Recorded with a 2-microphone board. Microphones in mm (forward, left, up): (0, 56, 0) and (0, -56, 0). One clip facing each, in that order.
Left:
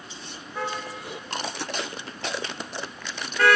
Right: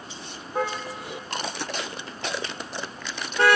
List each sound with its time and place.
0.6 s a car horn: 45° right (ahead or behind), 4.5 m; by 3.6 s 25° right (ahead or behind), 5 m